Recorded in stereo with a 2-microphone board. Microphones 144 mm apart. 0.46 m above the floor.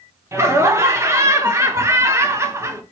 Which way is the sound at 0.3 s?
20° right (ahead or behind).